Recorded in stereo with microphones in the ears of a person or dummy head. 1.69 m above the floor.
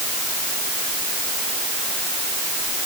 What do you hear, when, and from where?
Only background noise.